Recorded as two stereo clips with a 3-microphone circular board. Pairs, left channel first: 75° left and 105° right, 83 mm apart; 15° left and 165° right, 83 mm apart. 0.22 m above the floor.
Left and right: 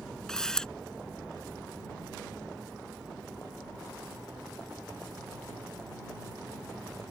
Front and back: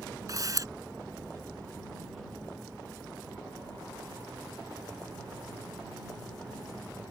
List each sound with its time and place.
0.3 s a camera shutter: 155° left